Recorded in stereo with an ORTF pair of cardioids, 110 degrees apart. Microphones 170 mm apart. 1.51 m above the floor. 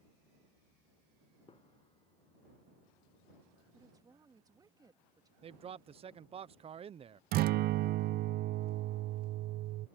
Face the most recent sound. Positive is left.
turn(degrees=-65)